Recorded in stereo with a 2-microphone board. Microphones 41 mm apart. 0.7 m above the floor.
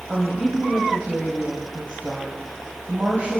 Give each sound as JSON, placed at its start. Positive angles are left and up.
{"t": 0.1, "sound": "a woman speaking", "side_deg": -45, "distance_m": 4.0}